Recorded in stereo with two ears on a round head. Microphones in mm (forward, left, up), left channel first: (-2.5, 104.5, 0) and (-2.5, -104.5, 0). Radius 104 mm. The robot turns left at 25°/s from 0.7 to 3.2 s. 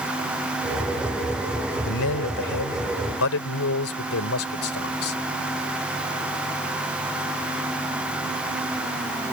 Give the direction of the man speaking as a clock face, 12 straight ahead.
9 o'clock.